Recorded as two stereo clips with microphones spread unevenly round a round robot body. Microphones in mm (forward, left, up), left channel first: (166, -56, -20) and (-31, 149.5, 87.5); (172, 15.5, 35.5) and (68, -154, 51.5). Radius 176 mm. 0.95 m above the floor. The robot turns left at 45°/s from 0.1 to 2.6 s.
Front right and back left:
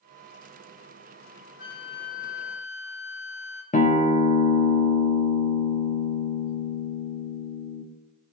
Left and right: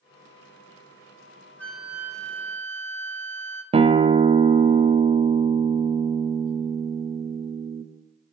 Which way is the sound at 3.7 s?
60° right.